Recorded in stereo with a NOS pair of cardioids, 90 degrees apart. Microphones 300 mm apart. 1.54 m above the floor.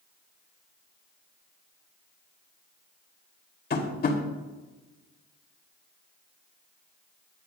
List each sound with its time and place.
3.7 s tapping: 35° left, 3 m